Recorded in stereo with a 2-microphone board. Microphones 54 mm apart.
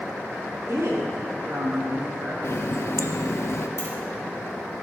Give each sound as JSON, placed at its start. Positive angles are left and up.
{"t": 0.7, "sound": "a woman speaking", "side_deg": -70, "distance_m": 2.5}
{"t": 2.4, "sound": "a running tap", "side_deg": 55, "distance_m": 0.6}
{"t": 3.8, "sound": "keys jangling", "side_deg": 55, "distance_m": 2.5}